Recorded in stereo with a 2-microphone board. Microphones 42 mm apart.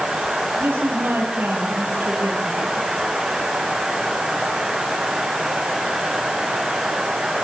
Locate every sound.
0.6 s a woman speaking: 65° right (ahead or behind), 5.5 m